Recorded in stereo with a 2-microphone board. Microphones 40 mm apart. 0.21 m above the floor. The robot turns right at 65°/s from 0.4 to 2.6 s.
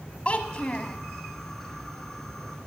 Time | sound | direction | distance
0.2 | a child speaking | 100° left | 0.7 m